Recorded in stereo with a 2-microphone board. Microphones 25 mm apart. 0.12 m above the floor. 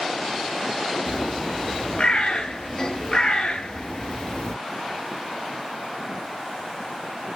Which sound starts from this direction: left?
A bird, at 1.1 s.